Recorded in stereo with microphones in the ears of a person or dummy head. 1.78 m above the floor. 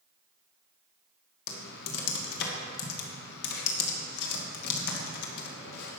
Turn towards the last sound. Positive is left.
turn(degrees=60)  # may be behind; listen again after turning